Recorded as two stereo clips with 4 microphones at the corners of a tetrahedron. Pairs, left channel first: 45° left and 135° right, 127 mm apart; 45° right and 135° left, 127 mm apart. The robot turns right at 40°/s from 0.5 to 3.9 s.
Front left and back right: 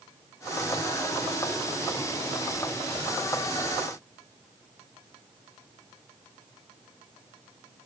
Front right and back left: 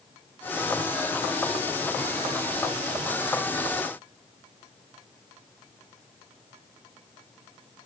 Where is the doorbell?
No doorbell in this recording.